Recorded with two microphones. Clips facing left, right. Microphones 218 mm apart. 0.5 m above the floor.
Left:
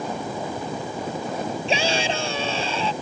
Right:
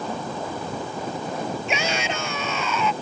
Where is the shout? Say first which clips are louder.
Left 3 dB; 30° left (ahead or behind).